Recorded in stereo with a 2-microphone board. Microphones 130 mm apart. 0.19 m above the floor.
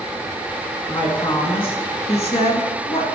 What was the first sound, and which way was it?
A woman speaking, 40° left (ahead or behind).